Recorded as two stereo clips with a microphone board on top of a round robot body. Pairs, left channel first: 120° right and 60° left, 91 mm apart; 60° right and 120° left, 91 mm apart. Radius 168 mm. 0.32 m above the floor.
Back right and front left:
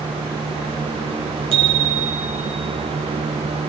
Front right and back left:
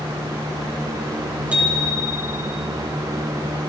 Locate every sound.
1.5 s a bicycle bell: 45° left, 4 m